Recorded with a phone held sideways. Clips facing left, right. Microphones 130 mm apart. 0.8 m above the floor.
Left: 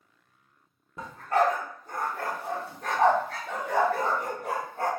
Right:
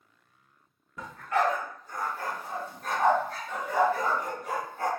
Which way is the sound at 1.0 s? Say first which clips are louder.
Left 3 dB; 30° left (ahead or behind).